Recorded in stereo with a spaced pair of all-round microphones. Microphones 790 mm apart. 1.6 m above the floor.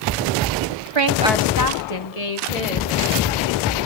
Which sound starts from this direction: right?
A woman speaking, at 0.9 s.